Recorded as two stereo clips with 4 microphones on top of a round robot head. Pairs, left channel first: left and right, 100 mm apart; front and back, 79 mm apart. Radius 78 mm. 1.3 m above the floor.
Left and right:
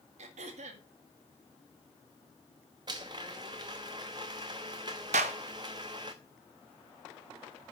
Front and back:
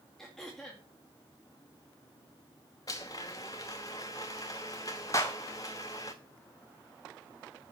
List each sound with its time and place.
0.2 s throat clearing: 85° right, 1.7 m
2.9 s a blender: 45° right, 0.7 m
5.1 s a clap: 65° right, 0.9 m